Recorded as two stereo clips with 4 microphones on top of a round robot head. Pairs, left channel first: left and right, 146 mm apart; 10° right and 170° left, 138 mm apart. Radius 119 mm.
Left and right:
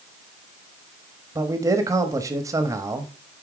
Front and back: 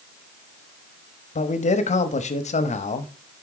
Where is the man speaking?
25° right, 1.0 m.